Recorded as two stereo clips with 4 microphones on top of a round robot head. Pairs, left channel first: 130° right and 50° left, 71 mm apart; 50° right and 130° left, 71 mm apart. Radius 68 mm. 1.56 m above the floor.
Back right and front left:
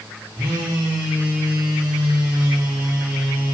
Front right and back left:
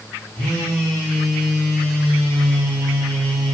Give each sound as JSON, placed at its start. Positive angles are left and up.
{"t": 0.4, "sound": "a phone buzzing", "azimuth_deg": 25, "distance_m": 1.7}